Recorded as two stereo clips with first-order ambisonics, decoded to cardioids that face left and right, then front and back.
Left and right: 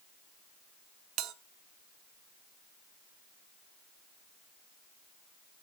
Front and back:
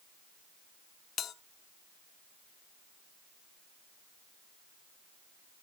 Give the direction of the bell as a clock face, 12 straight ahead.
2 o'clock.